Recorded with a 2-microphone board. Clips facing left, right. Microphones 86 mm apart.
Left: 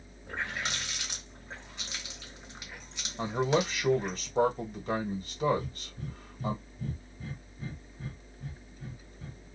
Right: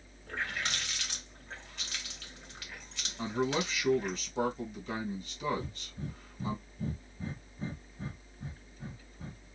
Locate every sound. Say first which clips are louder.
0.3 s a running tap: left 1 dB; 15° left (ahead or behind), 1.1 m
3.2 s a man speaking: left 4 dB; 45° left (ahead or behind), 1.1 m
5.5 s breathing: left 3 dB; 30° right (ahead or behind), 0.8 m